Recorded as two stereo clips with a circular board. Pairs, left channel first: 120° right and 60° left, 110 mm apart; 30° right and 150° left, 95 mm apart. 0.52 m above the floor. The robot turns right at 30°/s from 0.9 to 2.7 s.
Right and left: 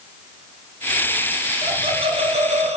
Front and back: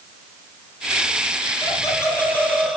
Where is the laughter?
20° left, 3.5 m; by 2.8 s 55° left, 3.5 m.